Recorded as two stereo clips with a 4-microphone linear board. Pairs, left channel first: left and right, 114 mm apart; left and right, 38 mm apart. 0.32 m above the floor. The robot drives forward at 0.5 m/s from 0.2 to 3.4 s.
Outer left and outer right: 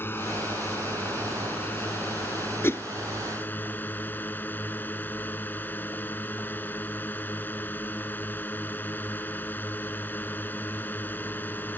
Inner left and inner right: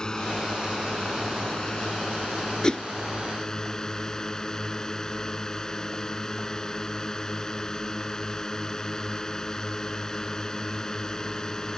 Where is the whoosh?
20° left (ahead or behind); by 2.8 s 25° left (ahead or behind).